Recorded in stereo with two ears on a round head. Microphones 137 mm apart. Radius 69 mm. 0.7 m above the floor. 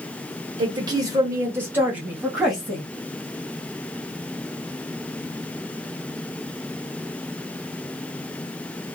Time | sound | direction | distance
0.6 | a woman speaking | 30° right (ahead or behind) | 1.2 m